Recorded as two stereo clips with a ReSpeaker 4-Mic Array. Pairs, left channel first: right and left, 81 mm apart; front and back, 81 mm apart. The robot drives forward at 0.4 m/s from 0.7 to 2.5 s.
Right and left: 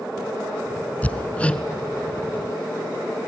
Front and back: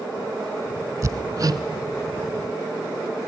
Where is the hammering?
155° right, 0.7 m; by 1.6 s 160° right, 0.9 m.